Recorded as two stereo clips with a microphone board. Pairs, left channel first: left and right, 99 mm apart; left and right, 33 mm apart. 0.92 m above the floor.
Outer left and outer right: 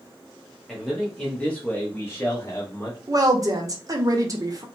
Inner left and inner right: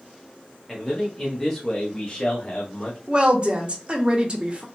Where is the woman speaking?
35° right (ahead or behind), 0.6 m.